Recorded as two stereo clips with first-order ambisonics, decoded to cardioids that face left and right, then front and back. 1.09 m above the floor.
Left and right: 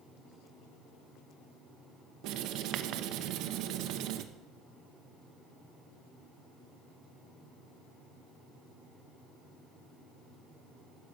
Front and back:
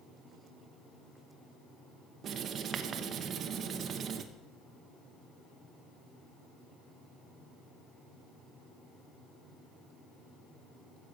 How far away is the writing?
About 0.7 m.